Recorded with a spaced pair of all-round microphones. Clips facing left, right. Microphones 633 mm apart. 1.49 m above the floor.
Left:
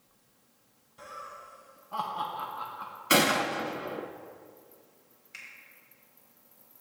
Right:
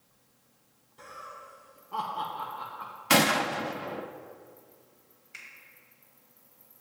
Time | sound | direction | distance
1.0 | laughter | 10° left (ahead or behind) | 1.1 m
3.1 | a gunshot | 25° right (ahead or behind) | 0.5 m
5.3 | a finger snap | 10° left (ahead or behind) | 2.5 m